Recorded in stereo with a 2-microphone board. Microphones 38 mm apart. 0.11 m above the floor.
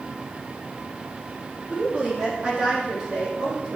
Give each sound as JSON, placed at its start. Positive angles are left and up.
{"t": 1.7, "sound": "a woman speaking", "side_deg": -40, "distance_m": 3.5}